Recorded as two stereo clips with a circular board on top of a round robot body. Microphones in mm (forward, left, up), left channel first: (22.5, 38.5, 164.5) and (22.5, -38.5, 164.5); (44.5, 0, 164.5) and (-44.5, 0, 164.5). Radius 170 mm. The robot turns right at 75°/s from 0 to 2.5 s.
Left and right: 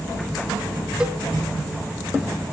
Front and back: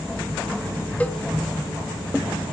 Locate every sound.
1.0 s a cowbell: 35° right, 1.3 m; by 1.2 s 20° right, 1.3 m